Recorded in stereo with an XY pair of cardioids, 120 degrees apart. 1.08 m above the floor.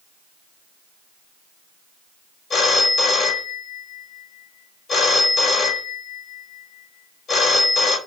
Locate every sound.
2.5 s a phone ringing: 40° left, 1.1 m